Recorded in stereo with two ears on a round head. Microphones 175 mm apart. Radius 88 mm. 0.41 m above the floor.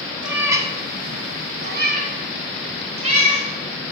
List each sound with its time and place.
0.2 s a cat meowing: 5° right (ahead or behind), 1.1 m; by 3.5 s 30° right (ahead or behind), 3 m